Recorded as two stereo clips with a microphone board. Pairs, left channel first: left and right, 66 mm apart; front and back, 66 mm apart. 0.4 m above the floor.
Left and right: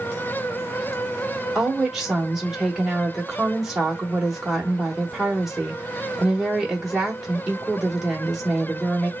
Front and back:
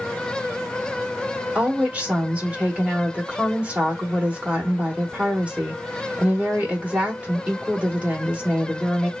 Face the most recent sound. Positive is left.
turn(degrees=-175)